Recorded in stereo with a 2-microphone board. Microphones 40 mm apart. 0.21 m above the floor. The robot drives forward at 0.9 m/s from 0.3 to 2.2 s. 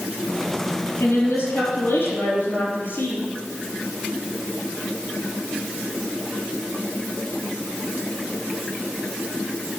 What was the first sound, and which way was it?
A woman speaking, 75° left (ahead or behind).